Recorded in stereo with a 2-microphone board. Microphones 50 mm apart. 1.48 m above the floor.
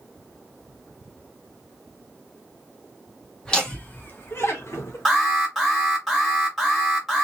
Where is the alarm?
Centre (ahead or behind), 1.5 m.